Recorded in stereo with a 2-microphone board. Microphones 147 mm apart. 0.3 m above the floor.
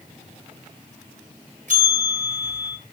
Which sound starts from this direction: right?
A bell, at 1.7 s.